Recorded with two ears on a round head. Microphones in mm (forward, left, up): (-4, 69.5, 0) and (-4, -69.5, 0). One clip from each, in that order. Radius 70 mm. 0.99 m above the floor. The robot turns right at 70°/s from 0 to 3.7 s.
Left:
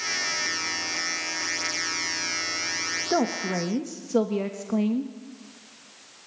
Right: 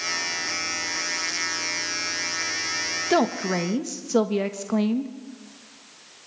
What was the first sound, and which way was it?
A woman speaking, 75° right.